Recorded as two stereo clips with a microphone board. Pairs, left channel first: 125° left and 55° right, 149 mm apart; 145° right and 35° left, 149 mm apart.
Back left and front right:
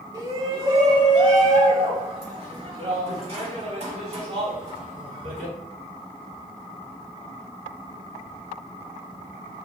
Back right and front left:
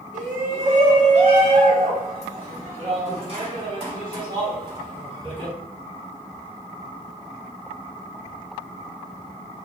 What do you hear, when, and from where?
0.1 s a shout: 5° left, 2 m; by 5.5 s 20° right, 5 m